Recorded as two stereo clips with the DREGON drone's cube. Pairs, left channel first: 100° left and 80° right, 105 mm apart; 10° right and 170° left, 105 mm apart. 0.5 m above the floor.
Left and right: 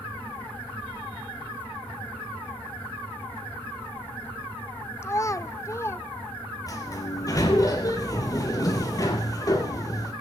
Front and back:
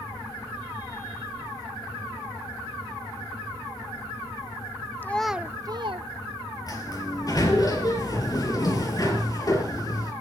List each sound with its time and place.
5.0 s a child speaking: 50° left, 0.6 m; by 6.1 s 160° left, 0.8 m
6.7 s a sliding door: 45° left, 3.5 m